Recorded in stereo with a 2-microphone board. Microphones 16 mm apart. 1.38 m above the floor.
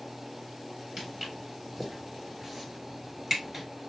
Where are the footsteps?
15° right (ahead or behind), 2 m.